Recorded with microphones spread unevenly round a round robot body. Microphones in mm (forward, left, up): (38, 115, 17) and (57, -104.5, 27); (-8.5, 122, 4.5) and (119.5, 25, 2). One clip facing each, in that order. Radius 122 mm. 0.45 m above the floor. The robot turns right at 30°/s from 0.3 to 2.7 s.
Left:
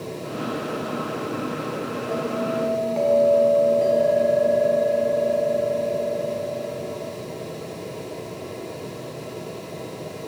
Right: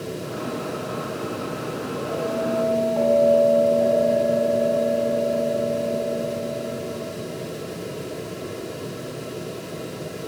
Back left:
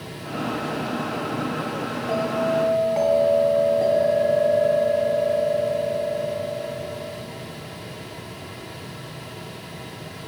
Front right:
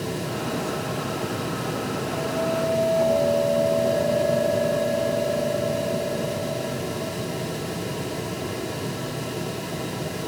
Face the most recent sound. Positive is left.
turn(degrees=155)